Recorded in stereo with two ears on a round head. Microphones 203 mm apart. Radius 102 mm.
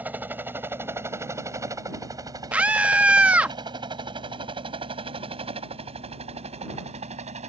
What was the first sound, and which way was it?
A helicopter, 10° right (ahead or behind).